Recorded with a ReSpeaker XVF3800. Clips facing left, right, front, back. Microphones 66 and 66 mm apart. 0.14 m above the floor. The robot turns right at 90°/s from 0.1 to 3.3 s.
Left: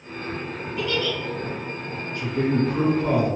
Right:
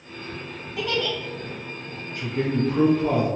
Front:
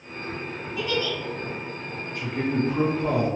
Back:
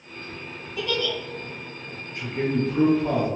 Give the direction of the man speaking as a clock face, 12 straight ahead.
4 o'clock.